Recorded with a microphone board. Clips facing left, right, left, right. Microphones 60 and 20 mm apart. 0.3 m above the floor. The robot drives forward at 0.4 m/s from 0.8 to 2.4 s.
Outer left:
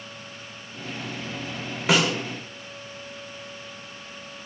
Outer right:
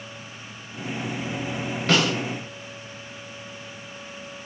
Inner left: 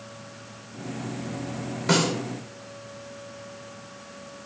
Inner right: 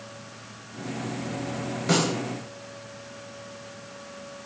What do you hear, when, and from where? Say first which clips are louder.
1.9 s a snare drum: even, inner left 1 dB; 10° left (ahead or behind), 0.8 m